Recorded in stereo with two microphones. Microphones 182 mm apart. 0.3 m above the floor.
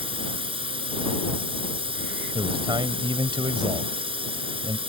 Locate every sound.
0.0 s a drone: 30° right (ahead or behind)
2.4 s a man speaking: 25° right (ahead or behind)